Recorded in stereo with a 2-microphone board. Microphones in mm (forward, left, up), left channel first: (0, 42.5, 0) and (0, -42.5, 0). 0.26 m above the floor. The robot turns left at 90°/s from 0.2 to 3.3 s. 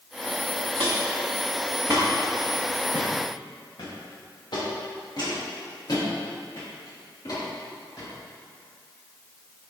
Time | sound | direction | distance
0.8 | footsteps | 70° right (ahead or behind) | 1.5 m